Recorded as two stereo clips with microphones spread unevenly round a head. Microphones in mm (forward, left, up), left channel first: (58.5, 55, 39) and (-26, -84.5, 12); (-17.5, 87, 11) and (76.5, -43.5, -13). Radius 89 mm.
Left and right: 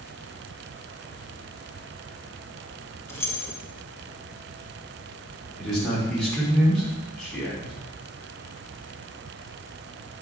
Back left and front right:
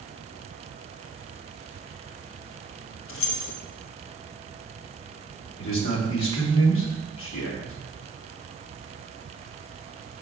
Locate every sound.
3.1 s keys jangling: 135° left, 0.9 m
5.6 s a man speaking: 145° left, 2.5 m